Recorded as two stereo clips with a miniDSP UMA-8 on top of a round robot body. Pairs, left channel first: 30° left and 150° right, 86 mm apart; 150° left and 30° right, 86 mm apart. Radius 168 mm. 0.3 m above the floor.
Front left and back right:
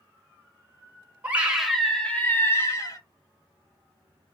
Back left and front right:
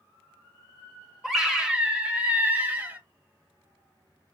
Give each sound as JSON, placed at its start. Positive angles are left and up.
{"t": 1.2, "sound": "a scream", "azimuth_deg": -115, "distance_m": 1.2}